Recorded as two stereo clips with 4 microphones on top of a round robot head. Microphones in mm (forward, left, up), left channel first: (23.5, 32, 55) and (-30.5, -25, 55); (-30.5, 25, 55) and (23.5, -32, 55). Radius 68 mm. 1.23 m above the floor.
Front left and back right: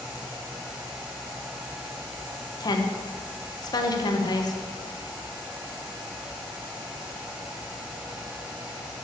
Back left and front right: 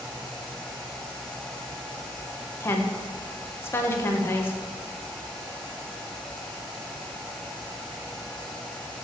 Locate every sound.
2.6 s a woman speaking: 75° left, 1.3 m